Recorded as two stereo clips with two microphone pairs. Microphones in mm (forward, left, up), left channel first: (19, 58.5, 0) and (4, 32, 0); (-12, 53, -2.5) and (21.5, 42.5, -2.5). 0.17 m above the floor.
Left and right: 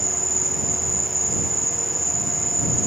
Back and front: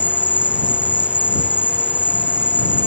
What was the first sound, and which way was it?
An insect, 25° right.